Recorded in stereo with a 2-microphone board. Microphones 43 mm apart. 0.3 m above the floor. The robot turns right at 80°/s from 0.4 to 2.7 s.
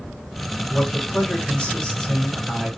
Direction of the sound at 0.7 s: 15° left (ahead or behind).